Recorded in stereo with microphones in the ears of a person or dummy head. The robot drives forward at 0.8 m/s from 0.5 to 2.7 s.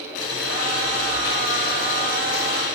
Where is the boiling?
70° left (ahead or behind), 5.5 m; by 2.7 s 55° left (ahead or behind), 6 m.